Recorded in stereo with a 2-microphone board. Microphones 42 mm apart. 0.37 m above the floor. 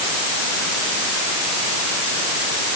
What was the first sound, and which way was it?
Only background noise.